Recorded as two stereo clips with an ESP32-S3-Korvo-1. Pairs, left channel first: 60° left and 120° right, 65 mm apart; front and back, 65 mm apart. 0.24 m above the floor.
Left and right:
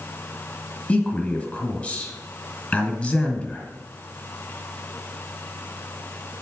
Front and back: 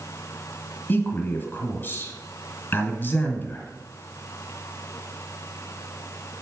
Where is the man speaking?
5° left, 1.6 m.